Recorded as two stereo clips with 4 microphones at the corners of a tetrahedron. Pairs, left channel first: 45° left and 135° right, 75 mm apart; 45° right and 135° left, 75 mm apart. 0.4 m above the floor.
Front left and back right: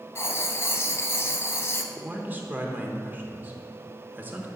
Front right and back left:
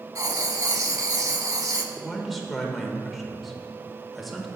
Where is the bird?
No bird in this recording.